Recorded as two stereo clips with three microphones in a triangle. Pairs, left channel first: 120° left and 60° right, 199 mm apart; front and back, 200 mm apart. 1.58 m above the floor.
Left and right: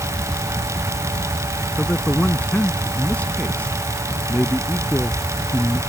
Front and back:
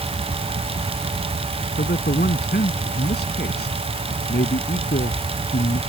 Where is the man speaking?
35° left.